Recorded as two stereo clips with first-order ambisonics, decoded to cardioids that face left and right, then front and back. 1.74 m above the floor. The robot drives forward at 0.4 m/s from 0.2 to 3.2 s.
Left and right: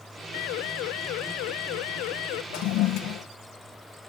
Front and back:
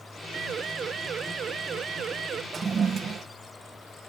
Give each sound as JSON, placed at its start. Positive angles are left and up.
{"t": 0.3, "sound": "a siren", "azimuth_deg": 115}
{"t": 2.5, "sound": "a toilet flushing", "azimuth_deg": 110}